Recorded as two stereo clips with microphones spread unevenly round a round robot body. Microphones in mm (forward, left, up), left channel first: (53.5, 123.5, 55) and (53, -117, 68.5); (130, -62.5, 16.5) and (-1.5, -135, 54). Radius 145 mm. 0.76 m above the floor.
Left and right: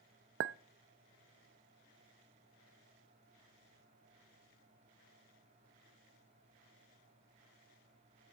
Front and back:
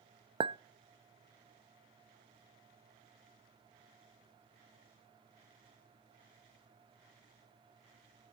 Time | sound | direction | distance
0.4 | a clink | 85° right | 0.5 m